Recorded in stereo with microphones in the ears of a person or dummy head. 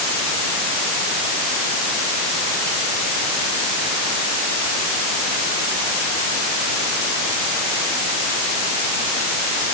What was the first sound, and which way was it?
Only background noise.